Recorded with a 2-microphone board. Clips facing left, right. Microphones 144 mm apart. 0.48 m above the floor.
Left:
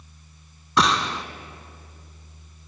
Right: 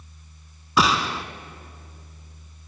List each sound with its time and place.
0.8 s a gunshot: 5° right (ahead or behind), 0.9 m